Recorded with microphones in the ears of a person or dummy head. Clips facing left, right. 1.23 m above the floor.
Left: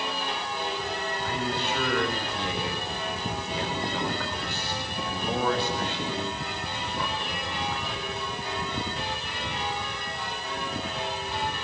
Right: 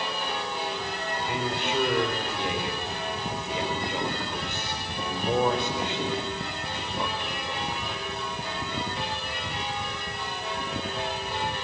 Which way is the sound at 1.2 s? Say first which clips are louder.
Right 1 dB; 20° right (ahead or behind).